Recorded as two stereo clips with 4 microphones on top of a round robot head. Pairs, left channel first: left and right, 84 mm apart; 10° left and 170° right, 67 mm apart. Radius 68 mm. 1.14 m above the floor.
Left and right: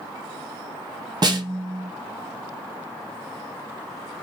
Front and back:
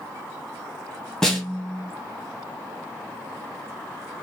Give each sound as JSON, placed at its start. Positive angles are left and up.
{"t": 1.2, "sound": "a snare drum", "azimuth_deg": -70, "distance_m": 0.8}